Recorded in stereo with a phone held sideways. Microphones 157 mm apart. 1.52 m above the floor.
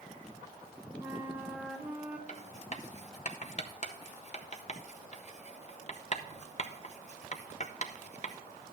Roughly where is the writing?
Left.